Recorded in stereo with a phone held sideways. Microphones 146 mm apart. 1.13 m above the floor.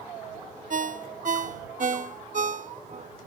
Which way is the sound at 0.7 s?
60° right (ahead or behind).